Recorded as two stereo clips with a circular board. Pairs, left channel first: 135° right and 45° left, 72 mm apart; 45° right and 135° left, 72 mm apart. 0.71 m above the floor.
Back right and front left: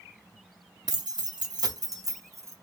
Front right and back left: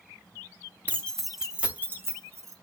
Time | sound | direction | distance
0.9 | keys jangling | 25° left | 0.6 m